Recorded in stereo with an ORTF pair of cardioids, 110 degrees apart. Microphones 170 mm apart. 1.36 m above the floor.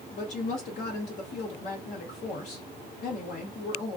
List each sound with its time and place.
0.1 s a woman speaking: 50° left, 0.8 m